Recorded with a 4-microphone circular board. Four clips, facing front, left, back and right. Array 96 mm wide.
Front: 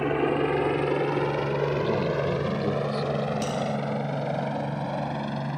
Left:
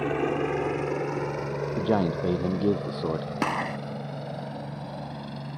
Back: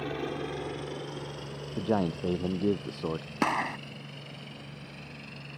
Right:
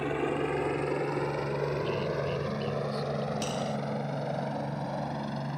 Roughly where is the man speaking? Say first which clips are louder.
Left 6 dB, front 4 dB; left.